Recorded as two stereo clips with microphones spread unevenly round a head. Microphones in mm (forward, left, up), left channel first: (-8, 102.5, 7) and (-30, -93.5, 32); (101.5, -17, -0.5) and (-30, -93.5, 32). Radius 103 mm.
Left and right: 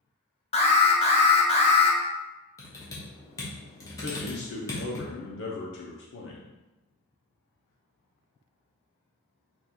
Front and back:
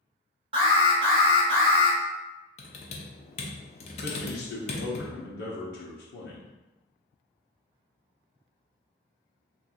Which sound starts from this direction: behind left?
An alarm, at 0.5 s.